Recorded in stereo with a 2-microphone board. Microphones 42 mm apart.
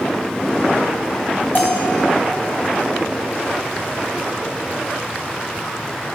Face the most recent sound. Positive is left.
turn(degrees=50)  # may be behind; listen again after turning